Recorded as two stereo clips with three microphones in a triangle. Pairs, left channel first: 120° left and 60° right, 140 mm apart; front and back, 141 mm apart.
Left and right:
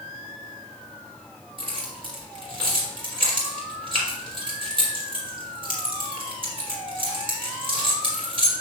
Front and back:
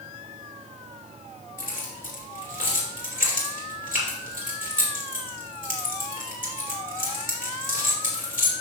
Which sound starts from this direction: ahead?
Keys jangling, at 1.6 s.